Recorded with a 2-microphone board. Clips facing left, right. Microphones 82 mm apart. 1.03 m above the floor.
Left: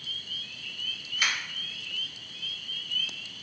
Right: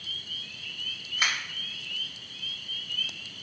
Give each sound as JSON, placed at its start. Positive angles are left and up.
{"t": 1.2, "sound": "a finger snap", "side_deg": -30, "distance_m": 1.5}